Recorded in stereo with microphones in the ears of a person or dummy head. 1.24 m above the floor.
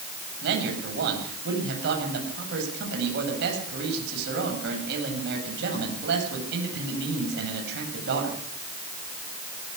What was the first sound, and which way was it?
A man speaking, 70° right (ahead or behind).